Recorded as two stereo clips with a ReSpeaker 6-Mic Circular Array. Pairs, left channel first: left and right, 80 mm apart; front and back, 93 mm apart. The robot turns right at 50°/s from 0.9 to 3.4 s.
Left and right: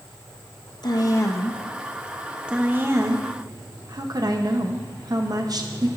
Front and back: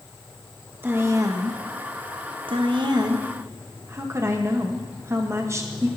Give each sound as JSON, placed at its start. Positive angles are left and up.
{"t": 0.8, "sound": "a woman speaking", "azimuth_deg": 115, "distance_m": 0.8}